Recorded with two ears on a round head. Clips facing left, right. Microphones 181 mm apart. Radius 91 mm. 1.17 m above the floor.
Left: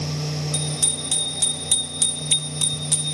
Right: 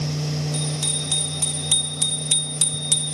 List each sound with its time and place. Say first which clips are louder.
0.5 s a bicycle bell: right 2 dB; 30° left (ahead or behind), 3.5 m; by 3.1 s 55° right (ahead or behind), 1.6 m